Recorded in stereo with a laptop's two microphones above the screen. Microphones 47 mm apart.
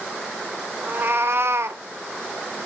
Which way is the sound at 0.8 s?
45° right (ahead or behind).